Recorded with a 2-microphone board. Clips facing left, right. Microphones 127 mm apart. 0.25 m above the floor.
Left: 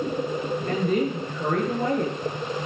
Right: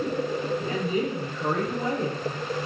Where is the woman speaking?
60° left (ahead or behind), 5 m.